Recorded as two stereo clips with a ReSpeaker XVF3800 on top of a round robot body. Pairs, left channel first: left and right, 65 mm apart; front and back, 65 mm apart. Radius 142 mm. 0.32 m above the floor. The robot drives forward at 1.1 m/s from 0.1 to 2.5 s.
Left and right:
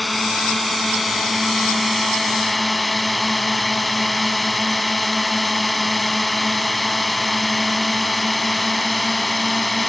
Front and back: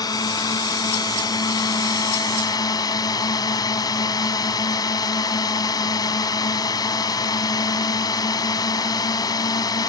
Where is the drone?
Straight ahead.